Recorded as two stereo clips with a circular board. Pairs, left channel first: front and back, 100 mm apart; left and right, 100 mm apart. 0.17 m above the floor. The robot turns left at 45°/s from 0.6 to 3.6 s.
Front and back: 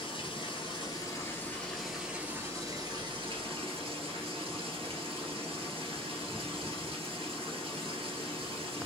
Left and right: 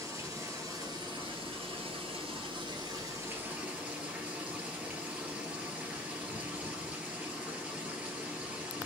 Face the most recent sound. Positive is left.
turn(degrees=-165)